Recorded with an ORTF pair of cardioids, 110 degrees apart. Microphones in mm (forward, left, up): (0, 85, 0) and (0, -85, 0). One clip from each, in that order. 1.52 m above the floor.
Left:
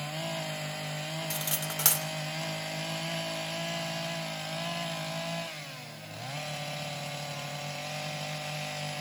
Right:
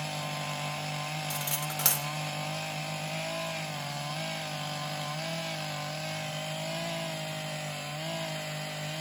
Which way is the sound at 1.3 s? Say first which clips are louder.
Even; 10° left.